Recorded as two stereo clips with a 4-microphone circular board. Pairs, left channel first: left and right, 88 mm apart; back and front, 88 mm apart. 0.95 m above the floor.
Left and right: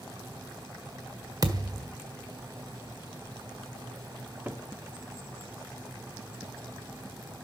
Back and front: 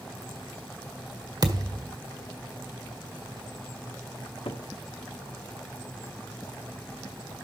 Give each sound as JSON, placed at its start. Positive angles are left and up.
{"t": 1.4, "sound": "a thud", "azimuth_deg": -45, "distance_m": 1.6}
{"t": 4.2, "sound": "a cupboard door", "azimuth_deg": -160, "distance_m": 1.4}